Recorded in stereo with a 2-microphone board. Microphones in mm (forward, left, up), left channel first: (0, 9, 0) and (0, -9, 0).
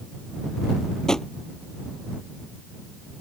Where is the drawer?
30° left (ahead or behind).